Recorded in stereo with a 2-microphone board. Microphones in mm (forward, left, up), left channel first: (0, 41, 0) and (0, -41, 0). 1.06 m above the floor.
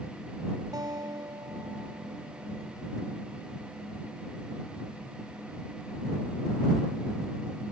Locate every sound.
0.7 s a guitar: 60° right (ahead or behind)